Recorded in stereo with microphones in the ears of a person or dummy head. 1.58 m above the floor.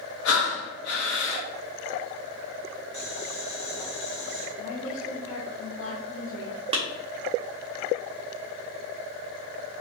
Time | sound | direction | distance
0.2 | breathing | 75° left (ahead or behind) | 0.8 m
2.9 | boiling | 60° left (ahead or behind) | 1.9 m
4.6 | a woman speaking | 60° left (ahead or behind) | 0.9 m
6.7 | a clap | 25° right (ahead or behind) | 0.6 m